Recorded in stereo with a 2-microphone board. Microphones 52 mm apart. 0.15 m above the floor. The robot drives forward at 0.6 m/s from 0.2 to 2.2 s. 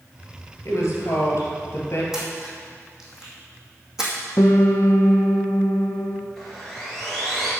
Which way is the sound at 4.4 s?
80° left.